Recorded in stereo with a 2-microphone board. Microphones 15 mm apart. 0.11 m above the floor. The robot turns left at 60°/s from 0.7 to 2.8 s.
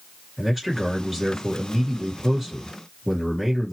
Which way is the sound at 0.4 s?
15° right (ahead or behind).